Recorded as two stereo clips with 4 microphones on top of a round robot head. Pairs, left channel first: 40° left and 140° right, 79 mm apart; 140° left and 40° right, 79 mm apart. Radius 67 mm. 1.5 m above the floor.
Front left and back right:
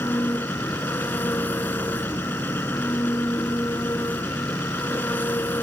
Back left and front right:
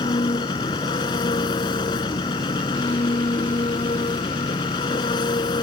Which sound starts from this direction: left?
An engine running, at 0.0 s.